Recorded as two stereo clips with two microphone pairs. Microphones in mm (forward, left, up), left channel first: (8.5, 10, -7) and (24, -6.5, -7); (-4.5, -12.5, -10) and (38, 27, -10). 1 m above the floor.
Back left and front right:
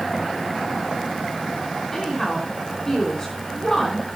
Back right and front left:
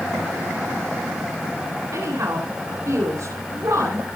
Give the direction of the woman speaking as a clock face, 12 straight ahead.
10 o'clock.